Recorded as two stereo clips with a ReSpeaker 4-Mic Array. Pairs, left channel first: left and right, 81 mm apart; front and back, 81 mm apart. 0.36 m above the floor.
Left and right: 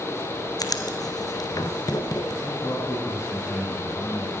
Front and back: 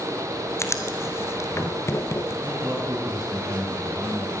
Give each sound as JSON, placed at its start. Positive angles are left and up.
{"t": 0.6, "sound": "writing", "azimuth_deg": 55, "distance_m": 1.4}
{"t": 2.4, "sound": "a man speaking", "azimuth_deg": 140, "distance_m": 4.0}